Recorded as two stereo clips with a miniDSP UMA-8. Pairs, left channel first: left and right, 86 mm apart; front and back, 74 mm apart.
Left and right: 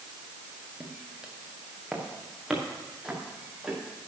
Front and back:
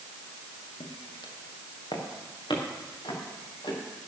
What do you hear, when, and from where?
0.8 s footsteps: 10° right, 3 m; by 3.8 s straight ahead, 7.5 m